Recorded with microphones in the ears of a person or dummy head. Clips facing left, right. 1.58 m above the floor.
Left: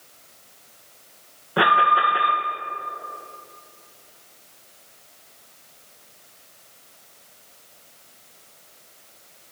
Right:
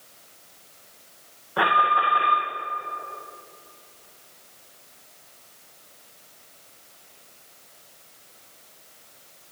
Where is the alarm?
40° left (ahead or behind), 2.0 m.